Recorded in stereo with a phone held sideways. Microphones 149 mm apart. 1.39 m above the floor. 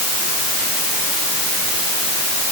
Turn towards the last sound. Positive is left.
No sound to turn to.